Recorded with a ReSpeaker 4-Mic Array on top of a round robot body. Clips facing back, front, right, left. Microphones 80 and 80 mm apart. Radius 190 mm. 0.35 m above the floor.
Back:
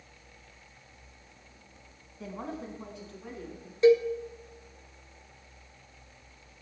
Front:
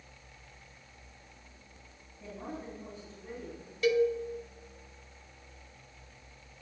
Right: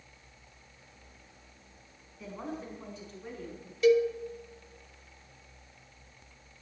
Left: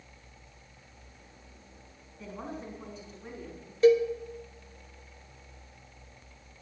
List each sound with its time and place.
2.2 s a woman speaking: 175° right, 4.5 m; by 3.7 s 170° left, 4.5 m
3.8 s a cowbell: 130° left, 1.4 m